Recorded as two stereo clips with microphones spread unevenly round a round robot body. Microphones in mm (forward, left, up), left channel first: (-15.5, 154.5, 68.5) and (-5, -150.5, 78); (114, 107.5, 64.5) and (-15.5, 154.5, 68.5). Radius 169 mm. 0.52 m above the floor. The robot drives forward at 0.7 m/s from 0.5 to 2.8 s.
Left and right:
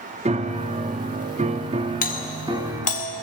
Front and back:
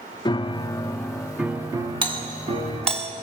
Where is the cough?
I don't hear a cough.